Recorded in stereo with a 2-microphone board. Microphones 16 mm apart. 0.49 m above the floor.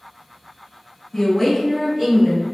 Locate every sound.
1.1 s a woman speaking: 40° left (ahead or behind), 1.2 m; by 2.5 s 35° right (ahead or behind), 1.6 m